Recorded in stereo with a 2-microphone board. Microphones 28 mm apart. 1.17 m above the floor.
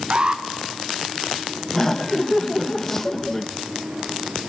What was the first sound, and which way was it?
An alarm, 35° right (ahead or behind).